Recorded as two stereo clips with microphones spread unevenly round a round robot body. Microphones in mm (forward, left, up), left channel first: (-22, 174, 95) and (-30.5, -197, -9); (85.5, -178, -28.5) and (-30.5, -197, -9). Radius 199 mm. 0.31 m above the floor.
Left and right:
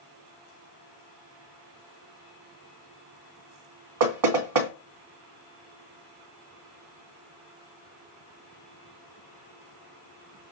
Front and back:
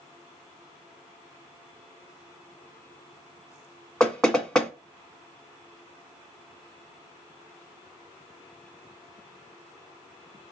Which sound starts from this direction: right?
Knocking, at 4.0 s.